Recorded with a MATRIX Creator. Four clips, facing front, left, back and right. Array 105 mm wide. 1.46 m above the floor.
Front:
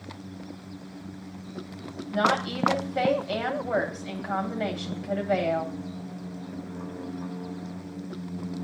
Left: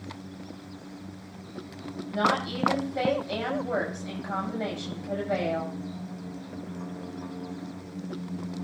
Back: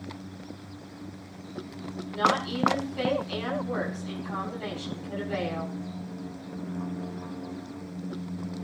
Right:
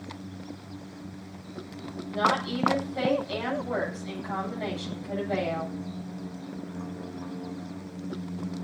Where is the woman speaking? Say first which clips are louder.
Even, front 1 dB; 15° left, 9.5 m.